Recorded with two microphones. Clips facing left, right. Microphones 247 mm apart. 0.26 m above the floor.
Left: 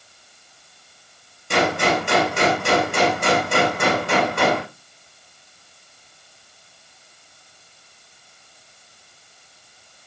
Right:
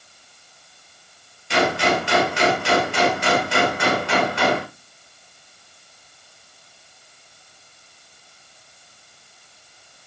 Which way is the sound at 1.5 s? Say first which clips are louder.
Even; 50° left (ahead or behind).